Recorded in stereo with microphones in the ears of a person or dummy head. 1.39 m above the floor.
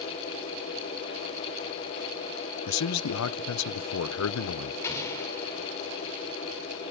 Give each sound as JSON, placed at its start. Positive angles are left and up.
{"t": 2.7, "sound": "a man speaking", "side_deg": 85, "distance_m": 0.7}
{"t": 4.8, "sound": "an explosion", "side_deg": 15, "distance_m": 5.0}